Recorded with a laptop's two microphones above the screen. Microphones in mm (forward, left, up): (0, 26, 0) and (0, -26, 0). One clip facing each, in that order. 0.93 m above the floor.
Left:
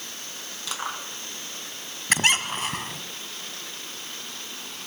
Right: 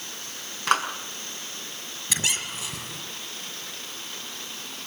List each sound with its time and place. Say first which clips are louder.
0.7 s a clap: right 10 dB; 55° right (ahead or behind), 6 m
2.1 s a squeak: left 8 dB; 55° left (ahead or behind), 1.6 m